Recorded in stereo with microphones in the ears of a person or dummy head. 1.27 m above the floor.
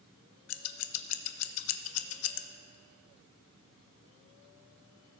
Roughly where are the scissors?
Left.